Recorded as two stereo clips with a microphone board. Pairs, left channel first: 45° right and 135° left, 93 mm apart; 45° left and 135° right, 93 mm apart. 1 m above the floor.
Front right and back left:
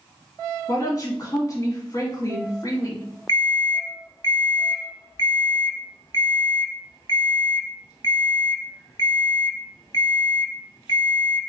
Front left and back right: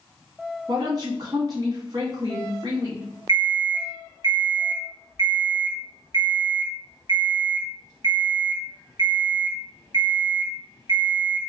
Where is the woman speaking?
90° right, 1.5 m.